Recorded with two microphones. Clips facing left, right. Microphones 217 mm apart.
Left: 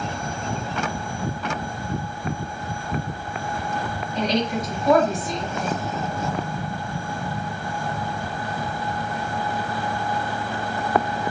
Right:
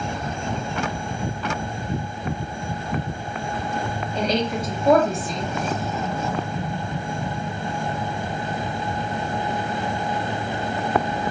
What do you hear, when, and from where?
4.2 s a woman speaking: 30° right (ahead or behind), 1.4 m